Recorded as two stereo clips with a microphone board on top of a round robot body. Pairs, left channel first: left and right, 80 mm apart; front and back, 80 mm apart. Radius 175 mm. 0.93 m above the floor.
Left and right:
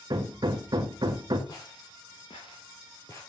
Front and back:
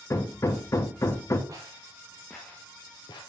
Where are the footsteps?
135° left, 1.7 m; by 3.2 s 30° left, 1.5 m.